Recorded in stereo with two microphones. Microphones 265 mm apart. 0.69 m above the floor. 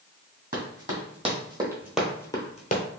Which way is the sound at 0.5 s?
35° right (ahead or behind).